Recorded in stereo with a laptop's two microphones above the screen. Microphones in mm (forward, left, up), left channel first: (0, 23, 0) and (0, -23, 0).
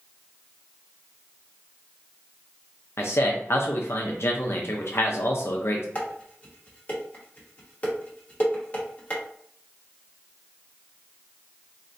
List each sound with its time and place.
3.0 s a man speaking: 60° left (ahead or behind), 0.6 m
6.0 s dishes clattering: 30° left (ahead or behind), 0.9 m